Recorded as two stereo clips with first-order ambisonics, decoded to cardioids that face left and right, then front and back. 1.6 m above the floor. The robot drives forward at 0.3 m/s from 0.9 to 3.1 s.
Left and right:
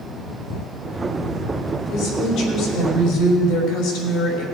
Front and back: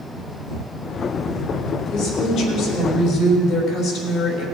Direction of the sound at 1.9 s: 75° left.